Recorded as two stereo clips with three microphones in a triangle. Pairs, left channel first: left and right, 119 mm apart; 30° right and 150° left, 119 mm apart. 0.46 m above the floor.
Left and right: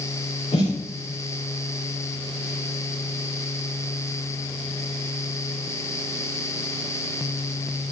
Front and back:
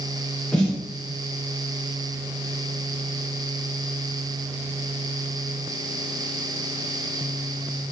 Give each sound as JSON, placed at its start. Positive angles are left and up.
{"t": 0.5, "sound": "a snare drum", "azimuth_deg": 50, "distance_m": 8.0}